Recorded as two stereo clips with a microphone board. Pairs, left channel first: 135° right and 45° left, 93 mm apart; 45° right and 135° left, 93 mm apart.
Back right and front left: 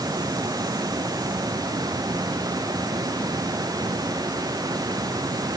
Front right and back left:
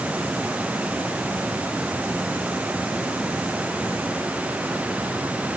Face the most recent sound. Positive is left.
No sound to turn to.